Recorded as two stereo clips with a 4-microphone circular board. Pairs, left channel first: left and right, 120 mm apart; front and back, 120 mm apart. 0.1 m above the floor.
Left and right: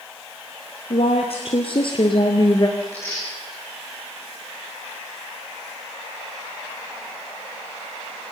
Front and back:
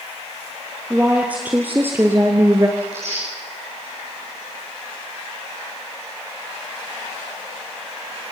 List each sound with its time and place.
0.9 s a woman speaking: 100° left, 2.5 m; by 2.7 s 130° left, 1.5 m
2.8 s tearing paper: 155° left, 6.5 m